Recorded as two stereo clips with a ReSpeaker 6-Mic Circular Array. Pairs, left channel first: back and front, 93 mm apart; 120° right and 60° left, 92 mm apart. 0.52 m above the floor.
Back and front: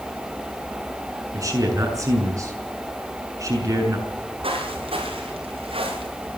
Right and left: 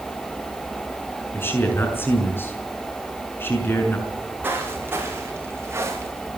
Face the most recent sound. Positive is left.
turn(degrees=0)